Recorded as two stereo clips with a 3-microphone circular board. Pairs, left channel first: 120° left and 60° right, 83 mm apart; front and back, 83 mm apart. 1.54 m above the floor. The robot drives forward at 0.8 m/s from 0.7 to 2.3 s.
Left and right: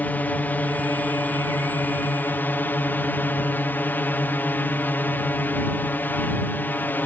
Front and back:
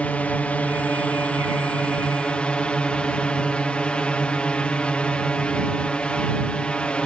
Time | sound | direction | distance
0.0 | a drone | 65° left | ?